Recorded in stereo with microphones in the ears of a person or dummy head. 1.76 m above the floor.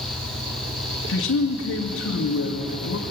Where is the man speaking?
70° left (ahead or behind), 2.5 m.